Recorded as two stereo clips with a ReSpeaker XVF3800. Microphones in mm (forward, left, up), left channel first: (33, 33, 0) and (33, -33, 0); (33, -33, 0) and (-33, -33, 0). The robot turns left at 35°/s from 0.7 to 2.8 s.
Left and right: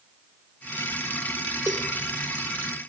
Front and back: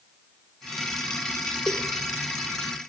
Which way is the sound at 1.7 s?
70° right.